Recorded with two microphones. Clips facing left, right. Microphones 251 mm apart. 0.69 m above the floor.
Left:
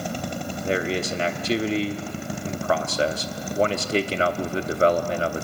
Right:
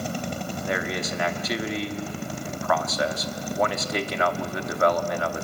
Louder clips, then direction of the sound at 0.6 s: Left 5 dB; 30° left (ahead or behind).